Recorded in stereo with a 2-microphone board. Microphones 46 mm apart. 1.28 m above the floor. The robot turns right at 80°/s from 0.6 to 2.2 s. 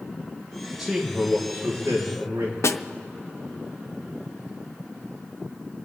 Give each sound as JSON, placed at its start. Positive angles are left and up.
{"t": 0.8, "sound": "a man speaking", "azimuth_deg": 180, "distance_m": 3.5}
{"t": 2.6, "sound": "a snare drum", "side_deg": 75, "distance_m": 0.5}